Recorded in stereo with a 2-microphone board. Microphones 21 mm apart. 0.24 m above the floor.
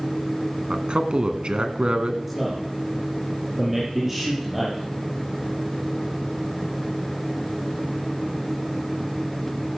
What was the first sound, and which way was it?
A man speaking, 60° right (ahead or behind).